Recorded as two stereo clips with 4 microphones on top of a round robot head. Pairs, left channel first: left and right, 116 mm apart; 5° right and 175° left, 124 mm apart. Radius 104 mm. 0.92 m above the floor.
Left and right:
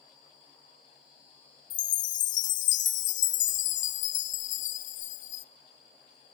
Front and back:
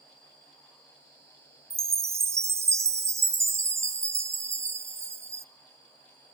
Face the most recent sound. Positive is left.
turn(degrees=105)